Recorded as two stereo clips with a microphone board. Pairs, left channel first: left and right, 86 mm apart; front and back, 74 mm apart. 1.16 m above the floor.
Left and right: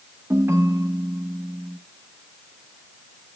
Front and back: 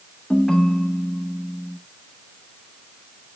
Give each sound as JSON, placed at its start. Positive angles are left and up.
{"t": 0.3, "sound": "a ringtone", "azimuth_deg": -80, "distance_m": 0.7}